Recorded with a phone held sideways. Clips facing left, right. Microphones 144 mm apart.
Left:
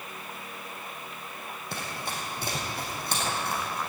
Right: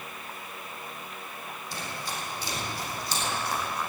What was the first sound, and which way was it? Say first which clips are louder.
Running footsteps: left 1 dB; 60° left (ahead or behind).